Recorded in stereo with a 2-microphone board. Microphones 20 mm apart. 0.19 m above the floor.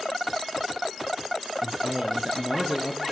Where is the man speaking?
35° right (ahead or behind), 2.5 m.